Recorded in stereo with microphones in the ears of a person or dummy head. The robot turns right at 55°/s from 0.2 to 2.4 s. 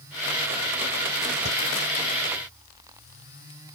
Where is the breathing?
50° right (ahead or behind), 2.5 m; by 1.6 s 55° right (ahead or behind), 2.5 m.